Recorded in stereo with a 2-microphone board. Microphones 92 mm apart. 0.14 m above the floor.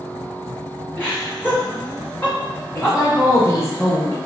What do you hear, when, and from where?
1.0 s laughter: 15° left (ahead or behind), 1.8 m
2.8 s a woman speaking: 35° left (ahead or behind), 1.8 m